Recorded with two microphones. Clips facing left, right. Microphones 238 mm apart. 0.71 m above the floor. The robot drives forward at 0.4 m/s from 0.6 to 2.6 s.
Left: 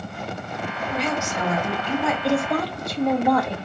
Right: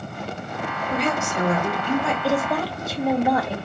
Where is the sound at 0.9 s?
55° right (ahead or behind), 2 m; by 2.1 s 45° right (ahead or behind), 2.5 m.